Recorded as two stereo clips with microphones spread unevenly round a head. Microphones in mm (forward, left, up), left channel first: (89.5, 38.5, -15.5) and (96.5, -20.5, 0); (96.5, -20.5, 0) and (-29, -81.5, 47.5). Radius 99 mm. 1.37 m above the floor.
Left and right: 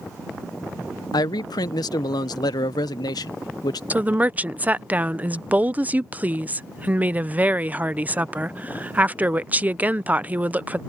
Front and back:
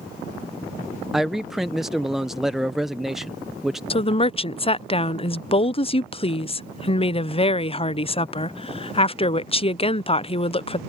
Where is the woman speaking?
15° right.